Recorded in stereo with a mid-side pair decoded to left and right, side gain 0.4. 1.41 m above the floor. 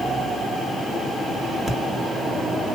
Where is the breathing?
Straight ahead, 1.9 m.